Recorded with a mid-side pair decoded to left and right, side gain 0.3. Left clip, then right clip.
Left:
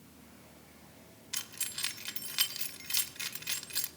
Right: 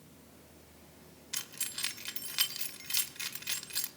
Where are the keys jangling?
5° right, 1.3 m.